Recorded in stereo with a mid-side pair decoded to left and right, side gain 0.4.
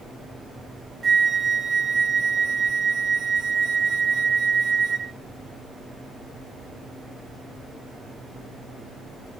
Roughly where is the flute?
Ahead right.